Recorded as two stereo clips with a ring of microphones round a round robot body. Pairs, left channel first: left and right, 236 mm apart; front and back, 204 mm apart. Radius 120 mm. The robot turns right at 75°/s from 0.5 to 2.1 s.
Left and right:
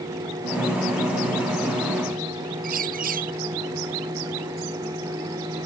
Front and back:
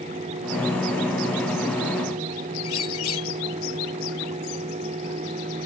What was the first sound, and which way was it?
A bird, 35° right.